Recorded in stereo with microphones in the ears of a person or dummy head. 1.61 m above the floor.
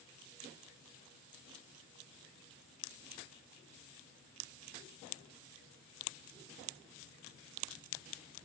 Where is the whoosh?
I don't hear a whoosh.